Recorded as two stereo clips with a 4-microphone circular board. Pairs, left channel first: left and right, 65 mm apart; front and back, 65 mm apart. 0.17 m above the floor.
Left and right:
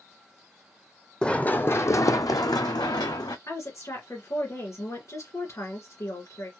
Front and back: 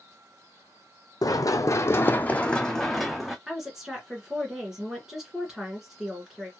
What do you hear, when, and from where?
1.2 s running footsteps: 15° left, 0.6 m; by 3.4 s 95° left, 1.0 m
3.5 s a woman speaking: 100° left, 2 m